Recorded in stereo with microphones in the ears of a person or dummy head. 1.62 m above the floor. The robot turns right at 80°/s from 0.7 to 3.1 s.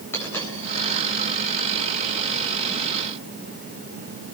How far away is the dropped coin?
About 8.5 m.